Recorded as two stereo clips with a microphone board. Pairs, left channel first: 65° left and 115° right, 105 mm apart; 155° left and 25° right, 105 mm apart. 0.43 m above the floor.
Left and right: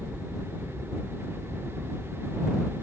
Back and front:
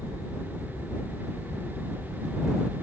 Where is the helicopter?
160° left.